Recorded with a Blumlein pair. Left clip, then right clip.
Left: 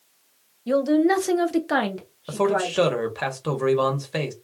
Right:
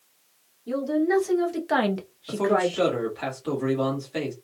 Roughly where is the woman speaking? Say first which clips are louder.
Left 5 dB; ahead left.